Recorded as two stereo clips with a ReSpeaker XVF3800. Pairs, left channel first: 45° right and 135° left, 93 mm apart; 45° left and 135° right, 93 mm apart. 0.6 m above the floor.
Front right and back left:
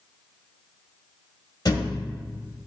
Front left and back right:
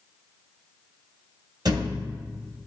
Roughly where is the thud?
Right.